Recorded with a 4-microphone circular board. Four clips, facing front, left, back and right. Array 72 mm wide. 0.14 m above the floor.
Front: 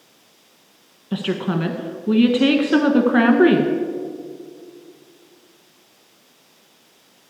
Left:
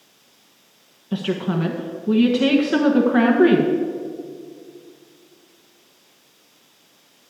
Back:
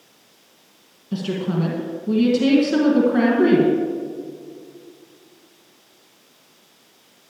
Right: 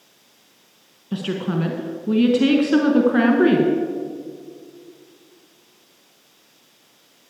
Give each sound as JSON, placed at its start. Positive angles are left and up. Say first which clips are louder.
{"t": 1.1, "sound": "a woman speaking", "louder": "left 1 dB, front 1 dB", "azimuth_deg": 5, "distance_m": 1.2}